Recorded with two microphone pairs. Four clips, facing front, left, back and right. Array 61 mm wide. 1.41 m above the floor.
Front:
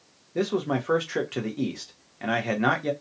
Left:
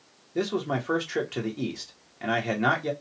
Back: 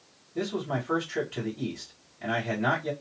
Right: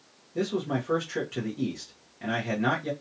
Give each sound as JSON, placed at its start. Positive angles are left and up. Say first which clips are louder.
{"t": 0.3, "sound": "a man speaking", "louder": "left 1 dB, front 5 dB", "azimuth_deg": 25, "distance_m": 1.0}